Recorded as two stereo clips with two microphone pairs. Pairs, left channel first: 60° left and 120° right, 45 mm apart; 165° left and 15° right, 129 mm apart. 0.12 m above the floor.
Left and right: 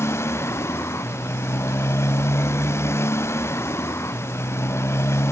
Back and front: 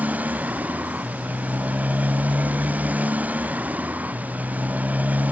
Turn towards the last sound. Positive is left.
turn(degrees=65)